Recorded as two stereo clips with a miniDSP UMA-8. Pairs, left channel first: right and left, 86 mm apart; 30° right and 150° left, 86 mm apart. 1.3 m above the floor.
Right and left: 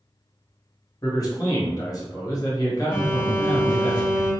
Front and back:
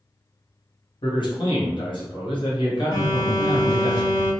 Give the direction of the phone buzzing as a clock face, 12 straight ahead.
1 o'clock.